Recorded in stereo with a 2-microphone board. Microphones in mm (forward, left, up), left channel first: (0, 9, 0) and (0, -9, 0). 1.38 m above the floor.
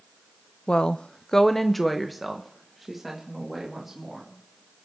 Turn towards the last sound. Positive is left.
turn(degrees=-15)  # may be behind; listen again after turning